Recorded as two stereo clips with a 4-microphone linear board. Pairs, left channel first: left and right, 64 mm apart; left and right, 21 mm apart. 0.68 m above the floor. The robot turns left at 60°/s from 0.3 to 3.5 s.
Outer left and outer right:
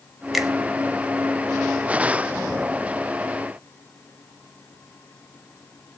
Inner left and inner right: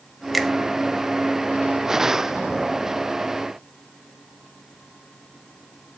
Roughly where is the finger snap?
Centre.